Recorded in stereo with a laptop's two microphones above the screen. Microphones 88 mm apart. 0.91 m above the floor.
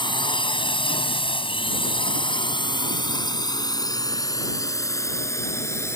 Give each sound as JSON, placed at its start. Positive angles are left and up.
{"t": 0.0, "sound": "a drone", "side_deg": 65}